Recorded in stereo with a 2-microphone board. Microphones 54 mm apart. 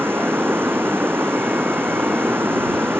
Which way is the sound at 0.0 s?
45° right (ahead or behind).